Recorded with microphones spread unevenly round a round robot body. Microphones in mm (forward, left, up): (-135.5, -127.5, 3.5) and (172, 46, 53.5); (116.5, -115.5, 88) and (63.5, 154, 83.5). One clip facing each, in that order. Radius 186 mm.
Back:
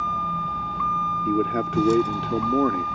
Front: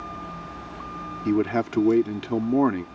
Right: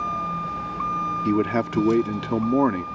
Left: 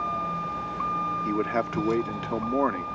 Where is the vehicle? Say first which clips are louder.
Back 4 dB, right 2 dB; 155° right.